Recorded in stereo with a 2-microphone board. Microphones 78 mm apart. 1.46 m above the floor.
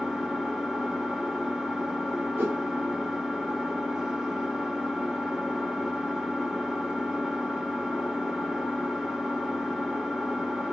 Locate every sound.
0.0 s an engine running: 5° right (ahead or behind), 1.1 m
2.4 s a whoosh: 30° right (ahead or behind), 1.4 m